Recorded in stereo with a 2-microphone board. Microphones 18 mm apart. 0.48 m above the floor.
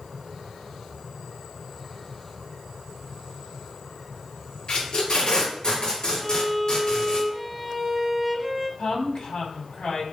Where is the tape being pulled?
60° left (ahead or behind), 4 m.